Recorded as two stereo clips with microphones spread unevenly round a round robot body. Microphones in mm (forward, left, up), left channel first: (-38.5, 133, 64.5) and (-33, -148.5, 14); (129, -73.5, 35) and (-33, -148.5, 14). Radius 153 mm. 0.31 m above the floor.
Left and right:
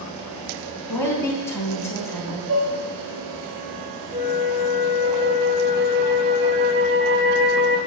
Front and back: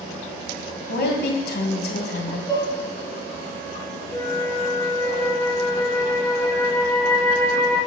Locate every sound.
0.9 s a woman speaking: 5° left, 2.5 m
2.5 s dishes clattering: 40° right, 3 m
4.1 s a flute: 50° right, 1.7 m